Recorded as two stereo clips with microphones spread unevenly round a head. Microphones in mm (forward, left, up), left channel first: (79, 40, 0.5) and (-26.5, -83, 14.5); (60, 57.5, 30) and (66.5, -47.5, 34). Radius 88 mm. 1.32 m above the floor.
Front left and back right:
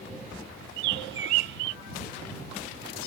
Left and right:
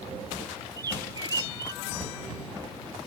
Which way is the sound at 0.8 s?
160° right.